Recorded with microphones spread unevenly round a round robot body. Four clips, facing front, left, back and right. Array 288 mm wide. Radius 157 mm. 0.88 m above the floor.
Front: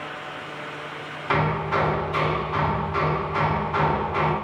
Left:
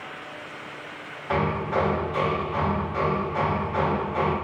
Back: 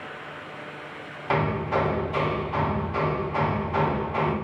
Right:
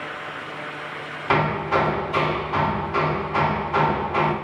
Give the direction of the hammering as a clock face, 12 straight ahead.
3 o'clock.